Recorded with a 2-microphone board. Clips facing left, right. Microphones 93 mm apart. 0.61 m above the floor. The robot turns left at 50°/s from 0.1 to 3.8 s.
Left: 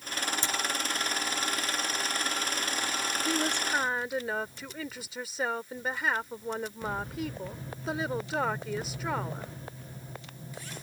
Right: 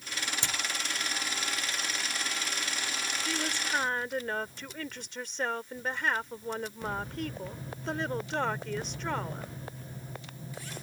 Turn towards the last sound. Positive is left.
turn(degrees=5)  # may be behind; listen again after turning